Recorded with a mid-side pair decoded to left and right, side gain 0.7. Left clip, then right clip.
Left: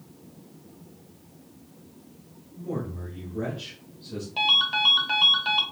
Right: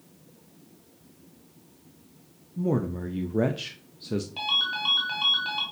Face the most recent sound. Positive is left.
turn(degrees=20)